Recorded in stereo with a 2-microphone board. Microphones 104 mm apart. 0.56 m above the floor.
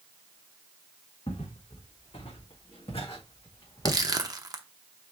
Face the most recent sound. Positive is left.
turn(degrees=-40)  # may be behind; listen again after turning